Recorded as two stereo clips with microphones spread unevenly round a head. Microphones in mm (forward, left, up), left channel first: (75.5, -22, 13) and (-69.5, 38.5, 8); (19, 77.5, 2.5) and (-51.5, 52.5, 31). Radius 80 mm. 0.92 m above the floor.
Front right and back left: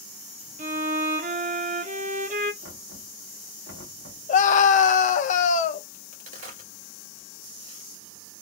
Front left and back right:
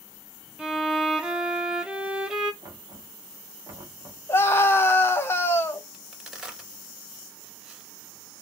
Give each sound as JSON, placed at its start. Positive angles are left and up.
{"t": 0.6, "sound": "a violin", "azimuth_deg": 155, "distance_m": 0.6}
{"t": 2.6, "sound": "knocking", "azimuth_deg": 160, "distance_m": 1.1}
{"t": 4.3, "sound": "a scream", "azimuth_deg": 0, "distance_m": 0.7}
{"t": 5.9, "sound": "a crack", "azimuth_deg": 115, "distance_m": 1.7}